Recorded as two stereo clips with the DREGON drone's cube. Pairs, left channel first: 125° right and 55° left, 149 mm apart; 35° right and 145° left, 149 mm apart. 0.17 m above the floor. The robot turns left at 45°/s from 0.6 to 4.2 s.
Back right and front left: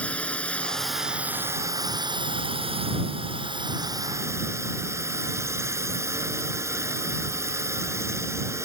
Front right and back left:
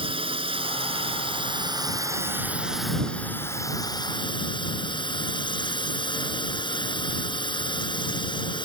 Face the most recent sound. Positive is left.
turn(degrees=-5)